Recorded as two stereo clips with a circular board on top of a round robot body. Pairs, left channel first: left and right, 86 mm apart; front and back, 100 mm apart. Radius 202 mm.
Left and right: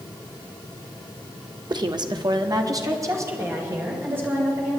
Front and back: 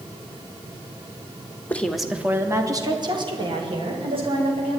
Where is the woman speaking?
70° right, 1.4 m; by 4.8 s 160° right, 4 m.